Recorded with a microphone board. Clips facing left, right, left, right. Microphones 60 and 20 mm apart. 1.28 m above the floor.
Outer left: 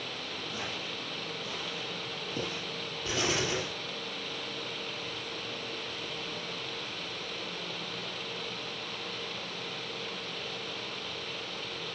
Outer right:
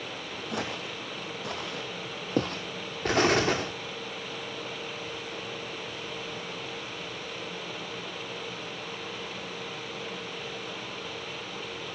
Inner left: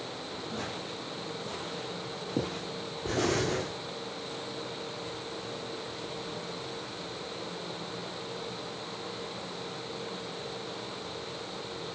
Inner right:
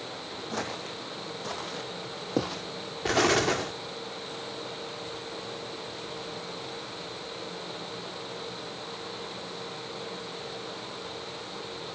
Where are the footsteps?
70° right (ahead or behind), 4 m; by 2.6 s 60° right (ahead or behind), 3 m.